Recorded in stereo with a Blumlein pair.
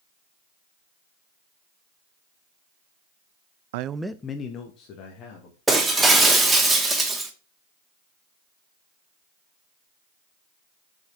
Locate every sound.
3.7 s a man speaking: 55° right, 0.5 m; by 5.6 s 40° left, 3 m
5.7 s breaking glass: 10° right, 1.9 m